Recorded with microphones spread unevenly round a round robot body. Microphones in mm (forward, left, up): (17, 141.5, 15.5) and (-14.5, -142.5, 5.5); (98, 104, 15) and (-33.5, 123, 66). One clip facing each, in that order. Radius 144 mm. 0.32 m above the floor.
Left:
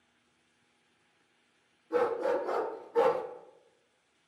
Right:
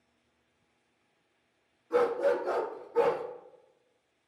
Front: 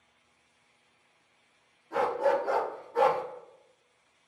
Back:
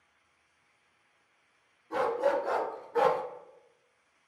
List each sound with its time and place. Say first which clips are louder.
1.9 s a dog barking: right 2 dB, front 1 dB; 175° right, 0.9 m; by 3.2 s 135° left, 0.7 m